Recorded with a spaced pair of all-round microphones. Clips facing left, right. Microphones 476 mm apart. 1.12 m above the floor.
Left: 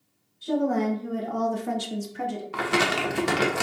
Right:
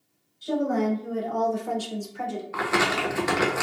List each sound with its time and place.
0.4 s a woman speaking: 10° left (ahead or behind), 1.2 m; by 2.4 s 30° left (ahead or behind), 0.8 m
2.5 s crumpling: 50° left (ahead or behind), 0.7 m